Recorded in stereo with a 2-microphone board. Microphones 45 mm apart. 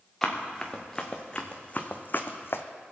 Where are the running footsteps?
5° left (ahead or behind), 2.0 m; by 2.6 s 60° left (ahead or behind), 0.9 m.